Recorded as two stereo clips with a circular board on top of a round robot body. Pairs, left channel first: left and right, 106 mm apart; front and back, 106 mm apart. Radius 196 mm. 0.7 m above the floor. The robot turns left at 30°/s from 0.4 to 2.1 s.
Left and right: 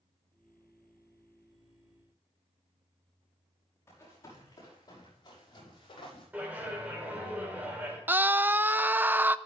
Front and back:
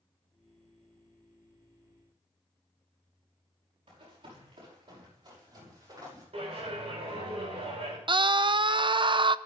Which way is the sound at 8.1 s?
160° right.